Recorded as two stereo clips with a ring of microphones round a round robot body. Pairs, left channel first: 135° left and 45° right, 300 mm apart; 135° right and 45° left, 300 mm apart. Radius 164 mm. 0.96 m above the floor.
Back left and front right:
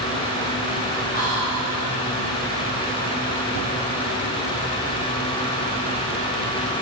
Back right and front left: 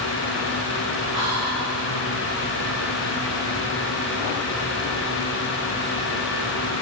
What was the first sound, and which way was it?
Whispering, 75° left.